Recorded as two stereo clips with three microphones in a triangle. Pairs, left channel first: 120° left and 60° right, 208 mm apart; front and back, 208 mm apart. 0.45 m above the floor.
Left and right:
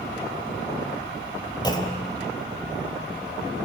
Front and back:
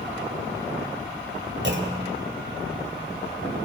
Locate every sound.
1.6 s a clunk: 170° right, 2.5 m